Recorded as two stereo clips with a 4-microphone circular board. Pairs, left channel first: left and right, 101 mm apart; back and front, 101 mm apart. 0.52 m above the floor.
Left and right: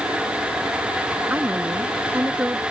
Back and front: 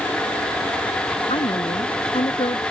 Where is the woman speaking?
160° right.